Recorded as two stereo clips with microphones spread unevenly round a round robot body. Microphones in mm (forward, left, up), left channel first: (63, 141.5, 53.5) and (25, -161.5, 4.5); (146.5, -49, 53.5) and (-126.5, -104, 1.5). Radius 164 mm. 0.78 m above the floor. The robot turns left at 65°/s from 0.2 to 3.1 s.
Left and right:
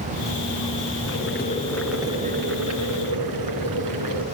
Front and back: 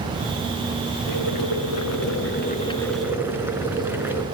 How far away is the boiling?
About 5 m.